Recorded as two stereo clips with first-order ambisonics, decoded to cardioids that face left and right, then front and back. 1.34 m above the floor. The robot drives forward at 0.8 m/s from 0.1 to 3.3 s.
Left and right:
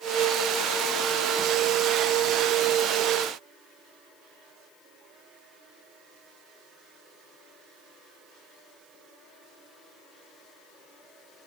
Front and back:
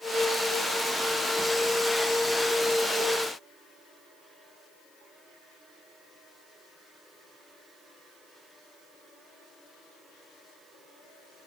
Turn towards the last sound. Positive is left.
No sound to turn to.